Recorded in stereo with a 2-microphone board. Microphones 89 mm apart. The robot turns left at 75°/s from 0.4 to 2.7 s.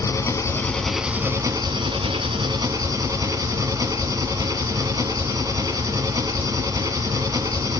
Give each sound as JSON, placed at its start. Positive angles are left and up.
{"t": 0.0, "sound": "an engine running", "azimuth_deg": 40, "distance_m": 1.6}